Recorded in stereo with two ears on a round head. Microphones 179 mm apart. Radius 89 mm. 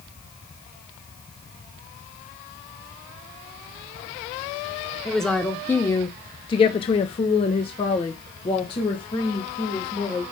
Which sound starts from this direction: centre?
A woman speaking, at 5.0 s.